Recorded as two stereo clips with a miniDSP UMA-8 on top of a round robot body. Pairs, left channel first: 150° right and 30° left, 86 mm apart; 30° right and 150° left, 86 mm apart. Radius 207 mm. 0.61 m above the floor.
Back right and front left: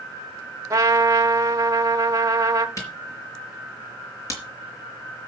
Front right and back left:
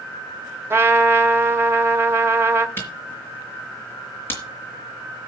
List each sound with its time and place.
0.7 s a trumpet: 85° left, 1.1 m
2.8 s a camera shutter: 95° right, 4.5 m